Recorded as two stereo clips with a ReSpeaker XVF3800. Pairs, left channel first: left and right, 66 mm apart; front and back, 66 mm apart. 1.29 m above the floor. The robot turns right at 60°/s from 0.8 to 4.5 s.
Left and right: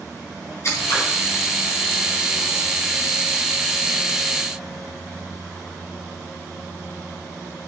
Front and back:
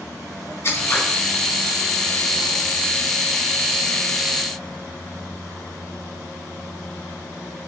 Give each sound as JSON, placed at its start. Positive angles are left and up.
{"t": 0.6, "sound": "scissors", "azimuth_deg": 50, "distance_m": 3.5}